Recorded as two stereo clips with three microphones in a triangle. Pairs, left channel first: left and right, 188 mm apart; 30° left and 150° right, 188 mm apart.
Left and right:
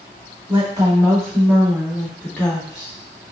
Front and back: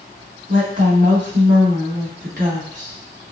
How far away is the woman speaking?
About 2.5 m.